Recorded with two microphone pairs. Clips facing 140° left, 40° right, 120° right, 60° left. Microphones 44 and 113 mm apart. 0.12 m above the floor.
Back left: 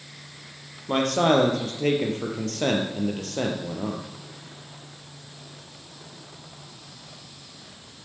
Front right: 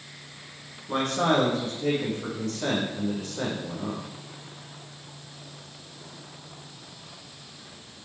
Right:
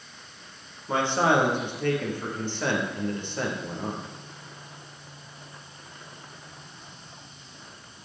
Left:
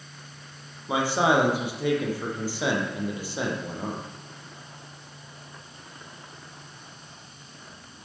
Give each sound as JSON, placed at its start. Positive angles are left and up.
{"t": 0.9, "sound": "a man speaking", "azimuth_deg": 140, "distance_m": 2.5}